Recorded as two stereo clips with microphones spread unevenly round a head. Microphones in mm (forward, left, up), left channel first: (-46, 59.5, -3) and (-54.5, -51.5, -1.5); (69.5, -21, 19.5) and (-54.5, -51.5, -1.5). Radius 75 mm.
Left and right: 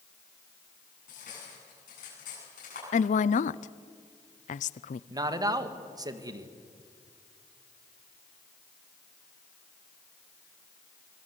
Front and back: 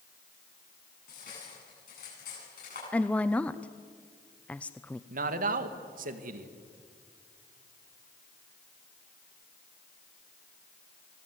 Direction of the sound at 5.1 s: 150° right.